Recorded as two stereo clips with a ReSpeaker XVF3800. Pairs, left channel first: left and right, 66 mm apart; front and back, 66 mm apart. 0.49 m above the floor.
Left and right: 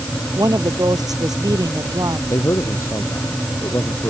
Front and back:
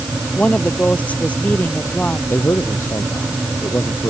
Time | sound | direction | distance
0.3 | a woman speaking | 70° right | ?
2.3 | a man speaking | 50° left | ?